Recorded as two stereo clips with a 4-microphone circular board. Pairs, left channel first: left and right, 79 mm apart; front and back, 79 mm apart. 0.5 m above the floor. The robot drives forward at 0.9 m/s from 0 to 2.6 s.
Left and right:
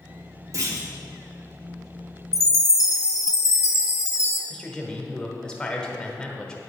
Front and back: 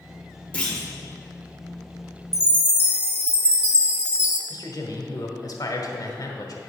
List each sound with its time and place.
0.5 s a clunk: 65° right, 1.6 m; by 0.9 s 80° right, 1.6 m
2.3 s a chime: 100° left, 1.0 m; by 4.4 s 115° left, 1.0 m
4.5 s a man speaking: 15° left, 1.4 m